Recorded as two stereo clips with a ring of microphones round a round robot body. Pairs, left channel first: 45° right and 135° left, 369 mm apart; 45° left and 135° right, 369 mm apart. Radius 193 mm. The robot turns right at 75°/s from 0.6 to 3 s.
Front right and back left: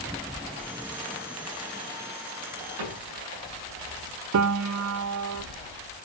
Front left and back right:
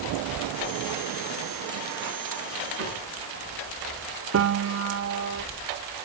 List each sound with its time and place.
2.8 s a cupboard door: 165° left, 10 m; by 3.0 s straight behind, 10 m
4.3 s a piano: 175° left, 0.7 m